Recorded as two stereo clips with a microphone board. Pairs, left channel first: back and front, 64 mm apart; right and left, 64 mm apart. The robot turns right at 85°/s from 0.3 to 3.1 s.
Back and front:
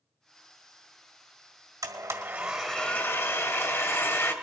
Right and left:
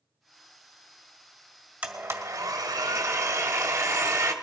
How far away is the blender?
About 1.7 m.